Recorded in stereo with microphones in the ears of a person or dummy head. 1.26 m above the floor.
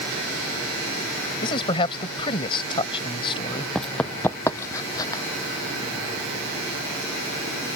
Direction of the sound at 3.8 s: Centre (ahead or behind).